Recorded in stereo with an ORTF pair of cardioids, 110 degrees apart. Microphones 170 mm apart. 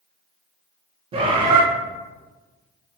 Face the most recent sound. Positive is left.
turn(degrees=-30)